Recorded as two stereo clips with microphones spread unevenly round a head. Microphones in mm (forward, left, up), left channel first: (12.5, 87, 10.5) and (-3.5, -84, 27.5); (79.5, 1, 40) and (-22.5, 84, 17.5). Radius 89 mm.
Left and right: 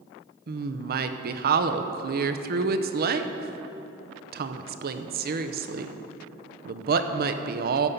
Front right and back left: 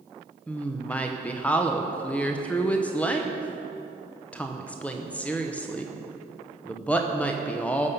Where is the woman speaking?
125° right, 0.7 m.